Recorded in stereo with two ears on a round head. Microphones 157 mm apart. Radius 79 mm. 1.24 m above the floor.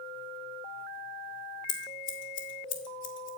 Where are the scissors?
75° left (ahead or behind), 2 m.